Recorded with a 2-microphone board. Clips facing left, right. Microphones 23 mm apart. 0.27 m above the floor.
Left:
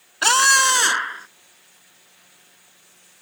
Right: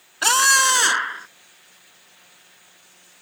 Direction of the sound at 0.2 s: 5° left (ahead or behind).